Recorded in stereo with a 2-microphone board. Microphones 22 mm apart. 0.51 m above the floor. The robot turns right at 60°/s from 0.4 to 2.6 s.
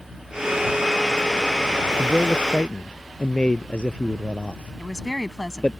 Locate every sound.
2.0 s a man speaking: 5° left (ahead or behind); by 5.8 s 40° left (ahead or behind)
4.8 s a woman speaking: 20° left (ahead or behind)